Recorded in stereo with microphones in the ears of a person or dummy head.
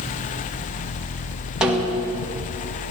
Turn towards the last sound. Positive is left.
turn(degrees=0)  # may be behind; listen again after turning